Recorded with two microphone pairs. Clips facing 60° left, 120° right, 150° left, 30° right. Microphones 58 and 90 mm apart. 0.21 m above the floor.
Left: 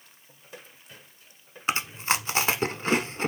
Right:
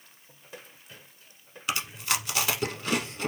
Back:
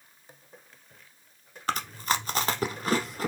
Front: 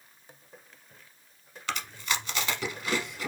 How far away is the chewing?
About 0.7 m.